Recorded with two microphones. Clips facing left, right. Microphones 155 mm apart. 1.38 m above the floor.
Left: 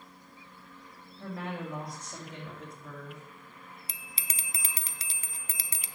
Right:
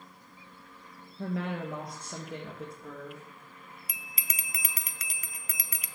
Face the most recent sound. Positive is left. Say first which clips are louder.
# right 1 dB
turn(degrees=30)  # may be behind; listen again after turning